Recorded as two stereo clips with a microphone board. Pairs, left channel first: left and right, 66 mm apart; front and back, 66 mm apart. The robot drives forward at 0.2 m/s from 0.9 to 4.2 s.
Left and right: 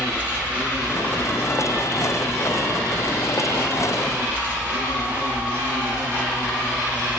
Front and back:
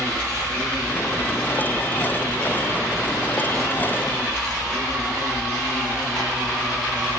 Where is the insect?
60° right, 2.5 m; by 7.2 s 100° right, 2.5 m.